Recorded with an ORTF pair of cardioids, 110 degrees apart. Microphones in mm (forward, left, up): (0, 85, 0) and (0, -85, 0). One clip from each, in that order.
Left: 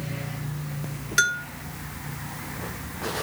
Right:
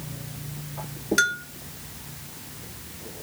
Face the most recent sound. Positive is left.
turn(degrees=15)